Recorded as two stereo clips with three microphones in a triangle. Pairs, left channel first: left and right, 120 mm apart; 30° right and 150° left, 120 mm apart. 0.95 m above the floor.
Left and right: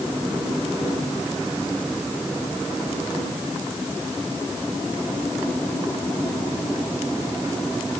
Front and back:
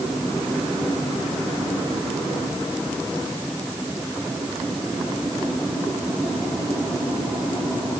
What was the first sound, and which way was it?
Only background noise.